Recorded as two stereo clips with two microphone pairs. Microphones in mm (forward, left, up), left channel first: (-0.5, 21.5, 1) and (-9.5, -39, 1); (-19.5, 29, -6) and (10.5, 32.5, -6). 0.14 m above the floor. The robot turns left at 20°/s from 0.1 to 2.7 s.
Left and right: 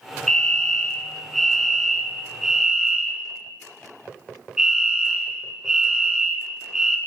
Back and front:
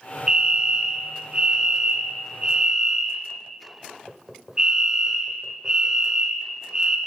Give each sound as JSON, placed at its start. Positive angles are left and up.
{"t": 0.3, "sound": "a fire alarm", "azimuth_deg": 20, "distance_m": 2.5}